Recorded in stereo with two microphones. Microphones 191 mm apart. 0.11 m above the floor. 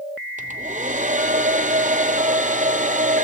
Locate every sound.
0.4 s a hair dryer: 40° right (ahead or behind), 1.3 m